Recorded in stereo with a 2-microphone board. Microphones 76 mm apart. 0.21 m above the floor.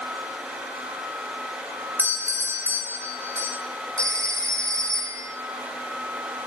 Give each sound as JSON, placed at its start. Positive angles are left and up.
{"t": 2.0, "sound": "a doorbell", "side_deg": -30, "distance_m": 5.0}
{"t": 4.0, "sound": "a phone ringing", "side_deg": -40, "distance_m": 6.5}